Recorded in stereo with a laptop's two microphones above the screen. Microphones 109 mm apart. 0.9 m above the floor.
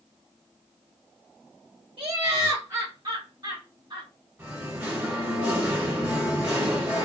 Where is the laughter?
50° right (ahead or behind), 1.2 m; by 4.1 s 55° right (ahead or behind), 2.5 m.